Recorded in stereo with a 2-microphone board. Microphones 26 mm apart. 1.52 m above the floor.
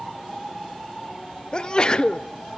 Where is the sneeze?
35° left (ahead or behind), 0.5 m.